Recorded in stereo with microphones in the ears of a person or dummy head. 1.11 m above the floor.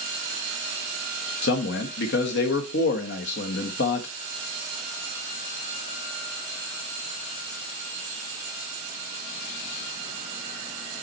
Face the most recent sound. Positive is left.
turn(degrees=65)  # may be behind; listen again after turning